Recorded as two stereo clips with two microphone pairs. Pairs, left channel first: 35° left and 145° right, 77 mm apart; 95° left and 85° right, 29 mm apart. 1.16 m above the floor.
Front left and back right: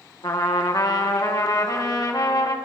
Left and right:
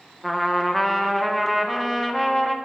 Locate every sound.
0.2 s a trumpet: 15° left, 1.4 m